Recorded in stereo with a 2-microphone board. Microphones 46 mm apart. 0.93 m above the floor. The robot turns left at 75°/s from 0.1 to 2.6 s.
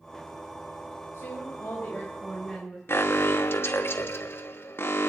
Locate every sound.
1.1 s a woman speaking: 100° left, 4 m; by 2.8 s 10° right, 4 m
2.9 s an alarm: 55° left (ahead or behind), 1.3 m